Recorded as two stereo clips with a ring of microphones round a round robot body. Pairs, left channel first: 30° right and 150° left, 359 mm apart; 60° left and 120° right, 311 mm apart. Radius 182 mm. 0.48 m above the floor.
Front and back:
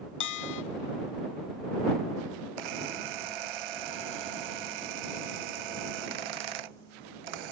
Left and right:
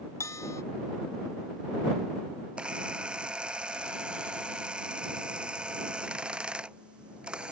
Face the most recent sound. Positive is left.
turn(degrees=155)